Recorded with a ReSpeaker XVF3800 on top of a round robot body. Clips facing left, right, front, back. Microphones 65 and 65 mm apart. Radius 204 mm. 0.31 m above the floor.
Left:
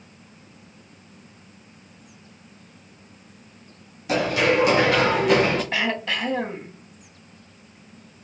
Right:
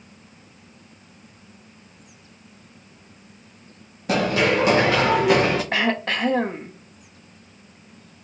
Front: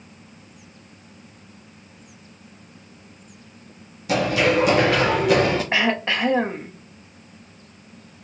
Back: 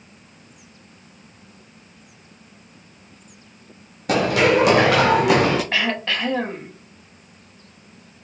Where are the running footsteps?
140° right, 1.1 m; by 5.6 s 165° right, 1.7 m.